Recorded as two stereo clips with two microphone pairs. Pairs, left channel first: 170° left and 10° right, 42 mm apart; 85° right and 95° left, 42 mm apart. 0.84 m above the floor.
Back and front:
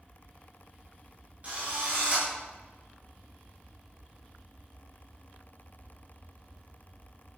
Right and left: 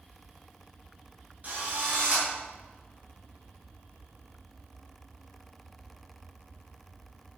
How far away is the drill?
About 7.5 m.